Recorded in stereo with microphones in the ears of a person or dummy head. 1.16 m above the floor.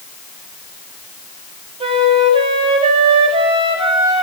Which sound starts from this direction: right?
A flute, at 1.8 s.